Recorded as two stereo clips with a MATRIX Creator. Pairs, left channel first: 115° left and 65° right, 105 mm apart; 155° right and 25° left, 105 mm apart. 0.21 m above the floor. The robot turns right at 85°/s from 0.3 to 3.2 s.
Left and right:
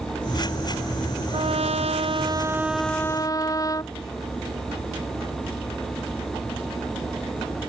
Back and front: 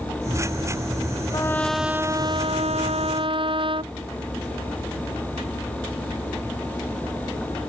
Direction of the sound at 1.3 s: 105° right.